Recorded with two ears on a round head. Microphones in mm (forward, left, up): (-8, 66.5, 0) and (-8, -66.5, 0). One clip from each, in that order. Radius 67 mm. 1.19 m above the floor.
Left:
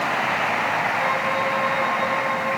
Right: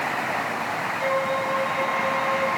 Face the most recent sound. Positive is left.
turn(degrees=40)  # may be behind; listen again after turning